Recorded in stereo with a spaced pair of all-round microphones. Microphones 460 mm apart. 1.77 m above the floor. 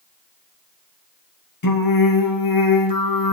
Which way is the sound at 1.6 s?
45° left (ahead or behind).